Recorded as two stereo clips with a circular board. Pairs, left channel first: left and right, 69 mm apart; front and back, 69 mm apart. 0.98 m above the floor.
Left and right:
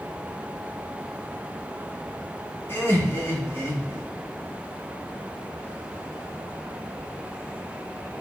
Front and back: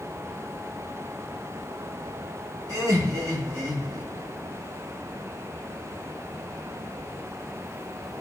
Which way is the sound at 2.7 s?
145° left.